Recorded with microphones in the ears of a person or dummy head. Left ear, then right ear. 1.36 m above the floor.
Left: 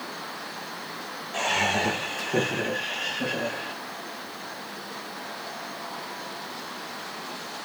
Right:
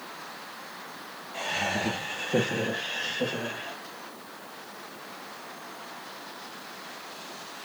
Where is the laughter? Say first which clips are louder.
Left 5 dB; 35° left (ahead or behind), 0.7 m; by 3.8 s 60° right (ahead or behind), 1.4 m.